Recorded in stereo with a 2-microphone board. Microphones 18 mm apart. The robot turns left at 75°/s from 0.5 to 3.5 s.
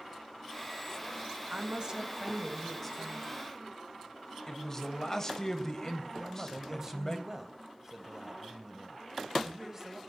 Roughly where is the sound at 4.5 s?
Left.